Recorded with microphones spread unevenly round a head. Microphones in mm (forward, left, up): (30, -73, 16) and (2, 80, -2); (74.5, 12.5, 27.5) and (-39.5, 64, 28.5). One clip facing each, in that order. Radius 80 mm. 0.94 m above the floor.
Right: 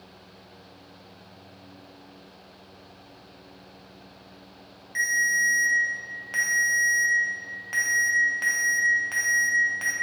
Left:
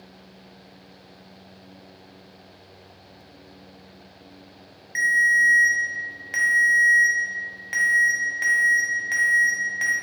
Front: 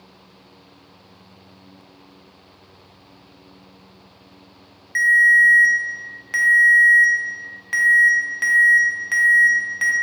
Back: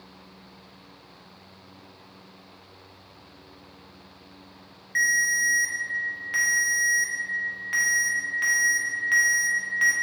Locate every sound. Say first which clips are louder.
5.0 s a ringtone: left 5 dB, front 10 dB; 20° left, 0.6 m